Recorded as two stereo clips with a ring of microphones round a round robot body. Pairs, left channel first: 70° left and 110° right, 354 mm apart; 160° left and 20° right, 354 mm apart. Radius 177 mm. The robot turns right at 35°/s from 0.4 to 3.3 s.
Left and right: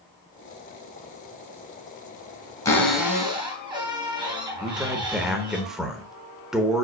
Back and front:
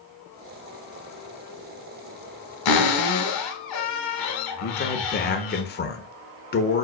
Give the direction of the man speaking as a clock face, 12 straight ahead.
7 o'clock.